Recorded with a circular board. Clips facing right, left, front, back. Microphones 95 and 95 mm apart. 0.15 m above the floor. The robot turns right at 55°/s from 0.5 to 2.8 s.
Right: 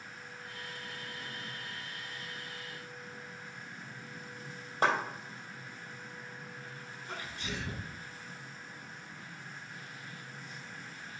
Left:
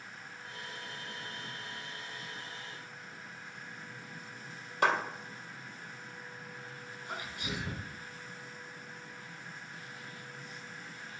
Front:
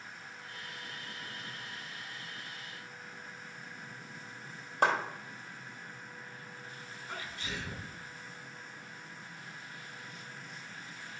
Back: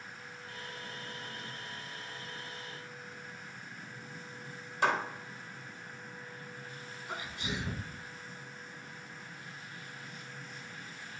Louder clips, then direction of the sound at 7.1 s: Left 1 dB, back 3 dB; 145° left.